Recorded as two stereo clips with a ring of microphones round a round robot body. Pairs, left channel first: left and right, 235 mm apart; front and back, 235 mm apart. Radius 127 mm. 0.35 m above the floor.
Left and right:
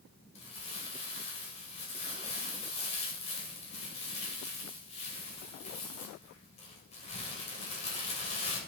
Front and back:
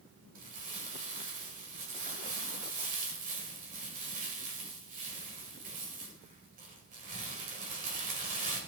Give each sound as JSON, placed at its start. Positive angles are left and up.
{"t": 0.3, "sound": "crumpling", "azimuth_deg": 140, "distance_m": 1.8}